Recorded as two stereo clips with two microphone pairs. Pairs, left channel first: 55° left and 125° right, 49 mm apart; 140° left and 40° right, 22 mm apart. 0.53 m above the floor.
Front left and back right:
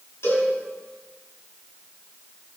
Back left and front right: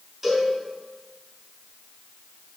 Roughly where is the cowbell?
Ahead left.